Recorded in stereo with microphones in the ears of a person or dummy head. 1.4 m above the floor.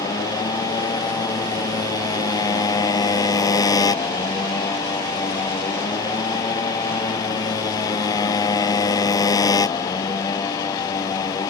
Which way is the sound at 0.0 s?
20° left (ahead or behind).